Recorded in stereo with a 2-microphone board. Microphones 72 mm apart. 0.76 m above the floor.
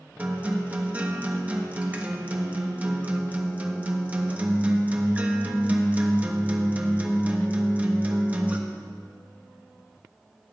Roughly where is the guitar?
Centre.